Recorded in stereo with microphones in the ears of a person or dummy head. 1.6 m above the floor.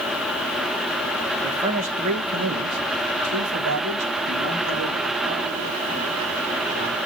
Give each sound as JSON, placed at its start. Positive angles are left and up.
{"t": 1.4, "sound": "a man speaking", "side_deg": -35, "distance_m": 2.0}